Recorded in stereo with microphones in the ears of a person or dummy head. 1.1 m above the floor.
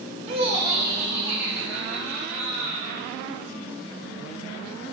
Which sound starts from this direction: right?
Laughter, at 0.3 s.